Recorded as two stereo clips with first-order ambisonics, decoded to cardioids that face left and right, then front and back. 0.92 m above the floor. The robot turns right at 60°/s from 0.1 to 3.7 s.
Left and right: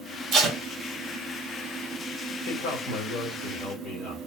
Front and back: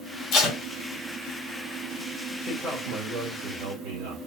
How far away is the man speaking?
About 2.5 m.